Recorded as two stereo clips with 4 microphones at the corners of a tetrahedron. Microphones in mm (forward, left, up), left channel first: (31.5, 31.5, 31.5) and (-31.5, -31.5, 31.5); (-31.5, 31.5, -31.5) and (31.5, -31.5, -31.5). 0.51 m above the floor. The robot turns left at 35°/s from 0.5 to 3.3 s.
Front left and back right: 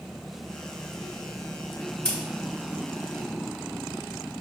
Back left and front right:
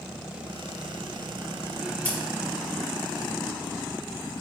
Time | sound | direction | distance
2.0 | scissors | 105° left | 0.9 m